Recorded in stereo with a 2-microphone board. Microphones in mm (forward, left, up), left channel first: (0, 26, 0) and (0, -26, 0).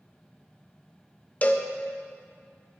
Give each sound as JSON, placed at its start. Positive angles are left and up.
{"t": 1.4, "sound": "a cowbell", "side_deg": 30, "distance_m": 0.6}